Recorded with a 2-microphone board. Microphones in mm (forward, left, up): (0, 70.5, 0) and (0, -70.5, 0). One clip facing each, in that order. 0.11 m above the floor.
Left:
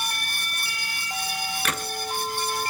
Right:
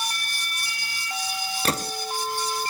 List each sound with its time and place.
1.6 s a gunshot: 35° right (ahead or behind), 0.6 m